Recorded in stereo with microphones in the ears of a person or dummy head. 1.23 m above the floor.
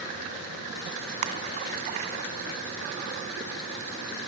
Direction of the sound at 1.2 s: 50° right (ahead or behind).